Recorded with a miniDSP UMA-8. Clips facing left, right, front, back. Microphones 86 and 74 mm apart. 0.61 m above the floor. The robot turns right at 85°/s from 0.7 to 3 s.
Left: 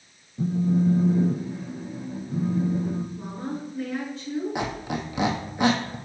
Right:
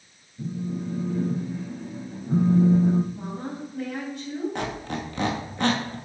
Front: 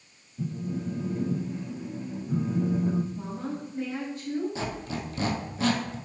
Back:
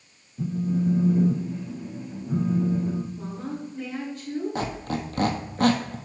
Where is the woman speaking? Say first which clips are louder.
Left 1 dB, back 1 dB; 65° right, 3 m.